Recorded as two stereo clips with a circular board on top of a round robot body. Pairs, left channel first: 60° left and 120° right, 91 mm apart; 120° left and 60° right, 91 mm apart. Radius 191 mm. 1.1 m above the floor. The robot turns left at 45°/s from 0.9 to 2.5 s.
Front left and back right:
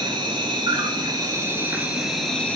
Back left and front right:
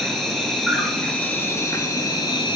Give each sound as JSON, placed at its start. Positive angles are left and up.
{"t": 0.0, "sound": "an insect", "azimuth_deg": -155, "distance_m": 2.0}